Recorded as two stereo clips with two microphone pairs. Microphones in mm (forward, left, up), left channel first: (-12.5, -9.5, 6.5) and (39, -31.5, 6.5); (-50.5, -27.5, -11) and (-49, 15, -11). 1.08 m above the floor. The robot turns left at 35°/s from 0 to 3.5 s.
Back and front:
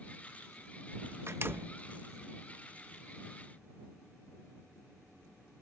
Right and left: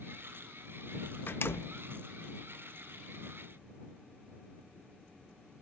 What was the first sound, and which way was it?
A door slam, 65° right.